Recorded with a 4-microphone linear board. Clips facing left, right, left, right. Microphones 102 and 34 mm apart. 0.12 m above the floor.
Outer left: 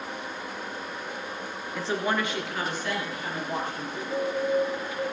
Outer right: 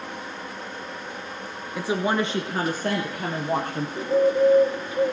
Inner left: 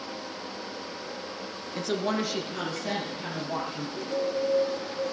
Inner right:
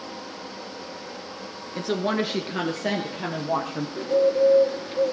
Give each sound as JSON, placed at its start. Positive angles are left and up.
{"t": 1.8, "sound": "a woman speaking", "side_deg": -5, "distance_m": 1.3}
{"t": 4.0, "sound": "a bird", "side_deg": -30, "distance_m": 1.9}